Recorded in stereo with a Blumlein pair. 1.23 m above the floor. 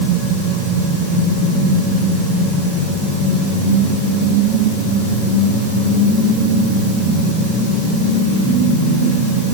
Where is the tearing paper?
No tearing paper in this recording.